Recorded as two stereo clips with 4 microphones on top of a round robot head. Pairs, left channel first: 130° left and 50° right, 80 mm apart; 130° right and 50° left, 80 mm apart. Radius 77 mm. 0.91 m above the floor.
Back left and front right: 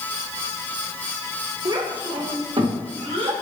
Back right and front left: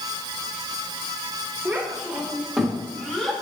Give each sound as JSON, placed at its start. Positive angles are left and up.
{"t": 1.6, "sound": "a child speaking", "azimuth_deg": -20, "distance_m": 1.6}